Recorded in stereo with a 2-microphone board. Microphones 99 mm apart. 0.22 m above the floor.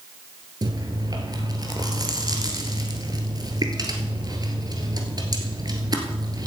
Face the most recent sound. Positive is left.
turn(degrees=-40)  # may be behind; listen again after turning